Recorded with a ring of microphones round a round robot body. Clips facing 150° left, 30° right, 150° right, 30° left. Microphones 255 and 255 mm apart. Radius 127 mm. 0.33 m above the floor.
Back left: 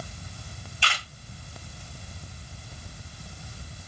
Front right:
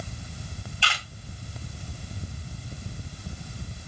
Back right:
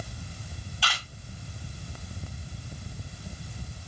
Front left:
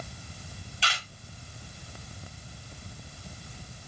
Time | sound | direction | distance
0.8 | a camera shutter | 85° left | 1.5 m